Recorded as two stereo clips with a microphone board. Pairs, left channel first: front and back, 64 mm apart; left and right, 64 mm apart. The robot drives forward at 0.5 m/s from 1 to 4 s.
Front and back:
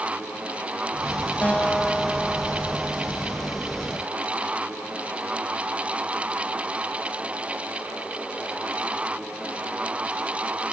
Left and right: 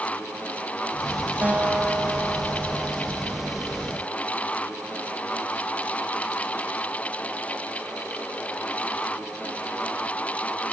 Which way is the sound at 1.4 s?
50° right.